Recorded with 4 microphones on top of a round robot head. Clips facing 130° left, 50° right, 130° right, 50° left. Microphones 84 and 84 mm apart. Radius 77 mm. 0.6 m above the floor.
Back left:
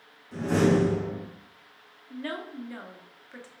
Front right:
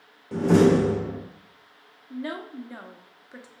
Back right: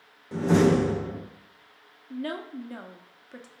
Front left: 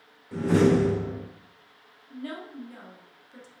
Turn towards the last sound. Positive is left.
turn(degrees=-120)